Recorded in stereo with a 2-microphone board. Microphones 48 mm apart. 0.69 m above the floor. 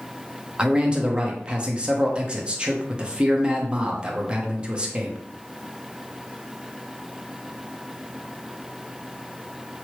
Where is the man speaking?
20° right (ahead or behind), 0.8 m.